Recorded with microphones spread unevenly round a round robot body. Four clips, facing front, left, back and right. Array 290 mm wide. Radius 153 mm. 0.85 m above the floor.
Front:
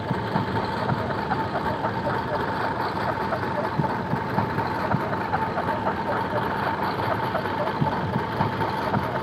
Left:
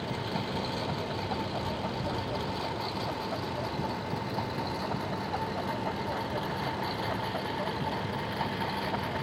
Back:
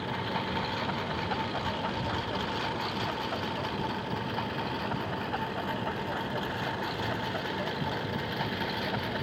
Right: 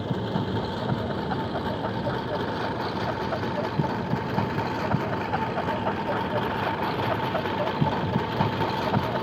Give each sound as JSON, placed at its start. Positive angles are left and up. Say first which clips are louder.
{"t": 0.0, "sound": "a lawn mower", "louder": "right 5 dB, front 7 dB", "azimuth_deg": -35}